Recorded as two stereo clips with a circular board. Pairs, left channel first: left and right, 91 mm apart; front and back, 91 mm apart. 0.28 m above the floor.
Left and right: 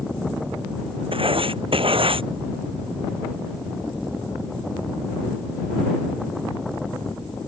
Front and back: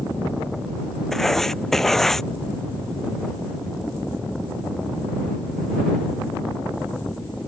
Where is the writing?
85° right.